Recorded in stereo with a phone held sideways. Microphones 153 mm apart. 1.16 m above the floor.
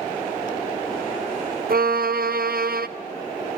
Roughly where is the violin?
Right.